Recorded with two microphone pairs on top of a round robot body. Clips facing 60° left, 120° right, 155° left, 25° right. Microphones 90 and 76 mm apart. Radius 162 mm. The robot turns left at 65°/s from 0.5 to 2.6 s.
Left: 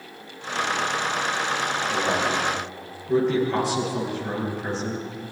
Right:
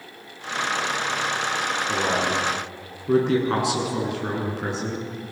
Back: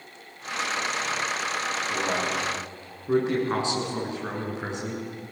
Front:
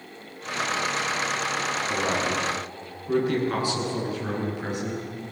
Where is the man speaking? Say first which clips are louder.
Right 1 dB, front 2 dB; 90° right, 7.5 m; by 5.0 s 135° right, 7.5 m.